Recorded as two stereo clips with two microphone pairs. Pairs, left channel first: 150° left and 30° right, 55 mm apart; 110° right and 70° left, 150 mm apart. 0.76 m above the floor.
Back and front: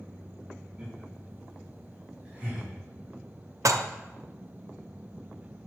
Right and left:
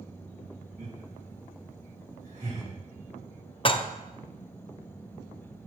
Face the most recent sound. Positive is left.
turn(degrees=-50)